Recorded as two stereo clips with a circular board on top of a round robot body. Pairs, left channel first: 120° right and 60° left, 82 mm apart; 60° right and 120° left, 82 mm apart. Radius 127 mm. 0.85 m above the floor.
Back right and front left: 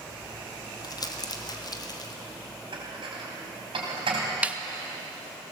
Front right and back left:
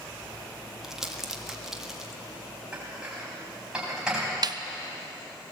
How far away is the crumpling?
About 1.6 m.